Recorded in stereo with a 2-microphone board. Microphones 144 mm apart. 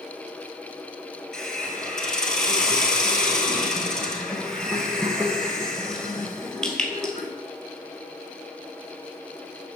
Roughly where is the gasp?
I don't hear a gasp.